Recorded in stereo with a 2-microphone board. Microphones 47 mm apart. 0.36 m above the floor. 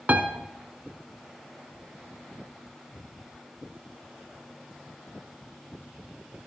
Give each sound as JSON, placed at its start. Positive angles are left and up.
{"t": 0.1, "sound": "a piano", "side_deg": -35, "distance_m": 1.2}